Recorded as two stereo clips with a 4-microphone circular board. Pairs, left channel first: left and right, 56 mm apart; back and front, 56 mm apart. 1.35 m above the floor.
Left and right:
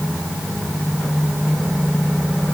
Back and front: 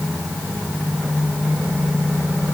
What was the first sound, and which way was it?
Only background noise.